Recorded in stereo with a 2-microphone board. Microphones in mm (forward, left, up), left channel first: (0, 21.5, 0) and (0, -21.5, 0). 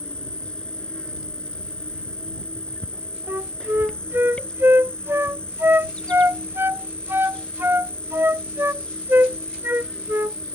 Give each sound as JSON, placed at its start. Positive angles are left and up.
{"t": 0.0, "sound": "an insect", "side_deg": 25}
{"t": 3.3, "sound": "a flute", "side_deg": -65}